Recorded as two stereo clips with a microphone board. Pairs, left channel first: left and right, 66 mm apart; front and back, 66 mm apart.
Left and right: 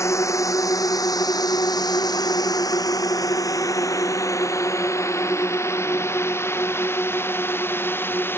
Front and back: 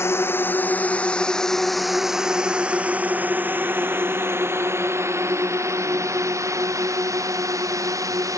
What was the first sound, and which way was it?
A drone, 50° left.